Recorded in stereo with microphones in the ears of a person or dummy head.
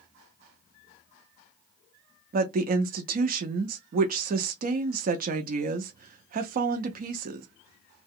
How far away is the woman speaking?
About 0.6 m.